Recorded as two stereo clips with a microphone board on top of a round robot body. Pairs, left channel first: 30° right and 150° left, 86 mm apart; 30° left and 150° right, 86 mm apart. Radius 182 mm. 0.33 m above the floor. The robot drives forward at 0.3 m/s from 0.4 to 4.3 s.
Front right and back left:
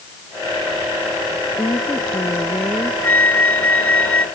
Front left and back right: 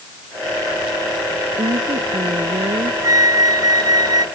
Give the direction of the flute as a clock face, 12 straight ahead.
3 o'clock.